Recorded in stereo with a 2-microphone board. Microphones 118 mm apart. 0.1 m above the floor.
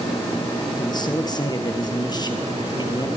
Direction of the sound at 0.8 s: 35° left (ahead or behind).